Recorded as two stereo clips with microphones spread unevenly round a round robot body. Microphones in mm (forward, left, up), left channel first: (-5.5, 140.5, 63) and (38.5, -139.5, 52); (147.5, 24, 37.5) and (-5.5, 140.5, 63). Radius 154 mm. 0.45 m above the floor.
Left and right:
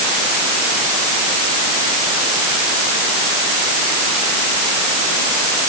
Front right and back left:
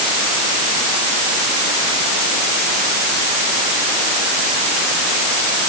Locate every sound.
Only background noise.